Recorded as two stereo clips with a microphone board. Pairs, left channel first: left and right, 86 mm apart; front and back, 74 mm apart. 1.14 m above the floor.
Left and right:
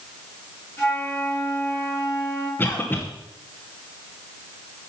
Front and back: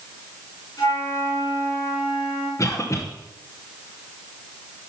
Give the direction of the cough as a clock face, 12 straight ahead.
11 o'clock.